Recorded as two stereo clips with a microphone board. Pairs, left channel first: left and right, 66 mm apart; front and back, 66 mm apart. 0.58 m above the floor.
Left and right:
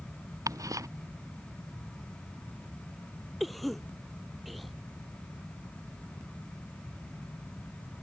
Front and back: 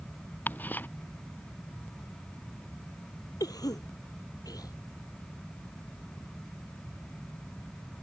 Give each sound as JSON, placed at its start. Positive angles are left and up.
{"t": 0.5, "sound": "ticking", "azimuth_deg": -60}
{"t": 3.4, "sound": "a cough", "azimuth_deg": 0}